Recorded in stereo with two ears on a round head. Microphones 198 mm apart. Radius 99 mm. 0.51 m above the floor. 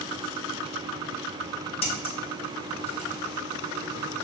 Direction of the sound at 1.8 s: 30° left (ahead or behind).